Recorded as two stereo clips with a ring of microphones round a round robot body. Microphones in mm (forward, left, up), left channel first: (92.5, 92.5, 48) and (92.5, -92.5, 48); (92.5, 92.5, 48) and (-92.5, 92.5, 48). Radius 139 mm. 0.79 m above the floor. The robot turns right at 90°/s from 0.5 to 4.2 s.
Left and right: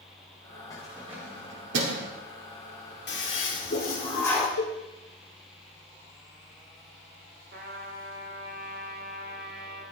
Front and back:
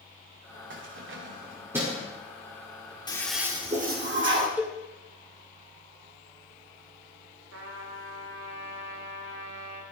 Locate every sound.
0.7 s keys jangling: 165° left, 1.9 m; by 2.1 s 70° right, 1.9 m
3.1 s a toilet flushing: 65° left, 2 m; by 4.5 s 170° left, 2 m
4.6 s a cowbell: 100° left, 1.9 m
7.5 s a trumpet: 145° right, 1.5 m